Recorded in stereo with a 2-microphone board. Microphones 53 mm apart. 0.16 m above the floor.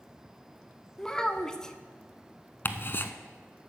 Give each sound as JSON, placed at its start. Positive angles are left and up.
{"t": 1.0, "sound": "a child speaking", "side_deg": 15, "distance_m": 0.6}
{"t": 2.6, "sound": "ticking", "side_deg": 45, "distance_m": 0.6}